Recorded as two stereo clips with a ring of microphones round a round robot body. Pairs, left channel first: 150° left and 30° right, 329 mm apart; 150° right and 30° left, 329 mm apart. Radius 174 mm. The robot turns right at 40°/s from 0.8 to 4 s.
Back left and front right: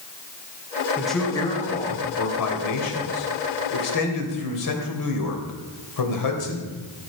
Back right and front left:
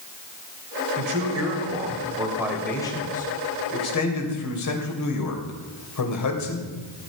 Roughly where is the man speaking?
Ahead left.